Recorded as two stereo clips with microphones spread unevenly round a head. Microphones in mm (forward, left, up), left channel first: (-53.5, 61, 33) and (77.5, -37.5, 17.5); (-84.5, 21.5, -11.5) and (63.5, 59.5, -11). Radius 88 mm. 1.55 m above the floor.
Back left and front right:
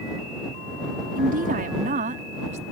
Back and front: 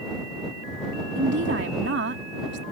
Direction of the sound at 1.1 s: Straight ahead.